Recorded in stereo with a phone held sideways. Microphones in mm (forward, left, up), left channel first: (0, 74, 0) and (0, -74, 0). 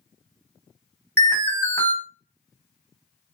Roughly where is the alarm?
Centre.